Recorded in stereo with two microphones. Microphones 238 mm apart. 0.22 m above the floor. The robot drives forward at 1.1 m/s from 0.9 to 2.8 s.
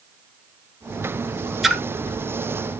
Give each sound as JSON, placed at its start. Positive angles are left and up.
{"t": 1.6, "sound": "a splash", "side_deg": 0, "distance_m": 1.0}